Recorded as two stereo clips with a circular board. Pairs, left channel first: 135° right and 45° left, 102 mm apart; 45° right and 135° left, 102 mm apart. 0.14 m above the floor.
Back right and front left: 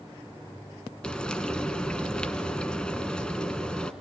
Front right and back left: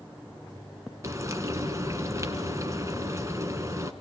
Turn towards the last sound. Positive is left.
turn(degrees=150)